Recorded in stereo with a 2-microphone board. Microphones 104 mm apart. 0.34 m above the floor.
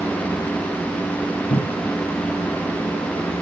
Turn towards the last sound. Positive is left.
turn(degrees=55)  # may be behind; listen again after turning